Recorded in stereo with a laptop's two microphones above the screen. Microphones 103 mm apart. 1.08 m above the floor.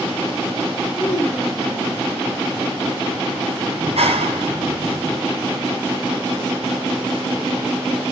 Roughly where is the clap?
Right.